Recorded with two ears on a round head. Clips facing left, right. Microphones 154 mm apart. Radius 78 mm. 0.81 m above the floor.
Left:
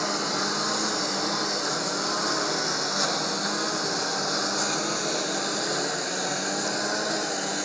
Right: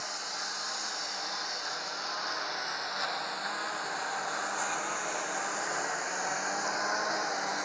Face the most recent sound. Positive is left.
turn(degrees=40)  # may be behind; listen again after turning